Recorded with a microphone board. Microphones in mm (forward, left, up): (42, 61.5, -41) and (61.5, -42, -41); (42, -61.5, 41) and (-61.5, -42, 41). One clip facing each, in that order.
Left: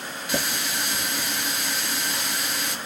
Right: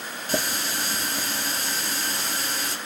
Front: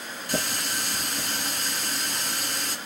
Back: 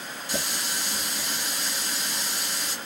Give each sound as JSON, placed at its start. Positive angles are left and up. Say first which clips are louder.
{"t": 0.3, "sound": "a running tap", "louder": "right 1 dB, front 3 dB", "azimuth_deg": -30, "distance_m": 1.6}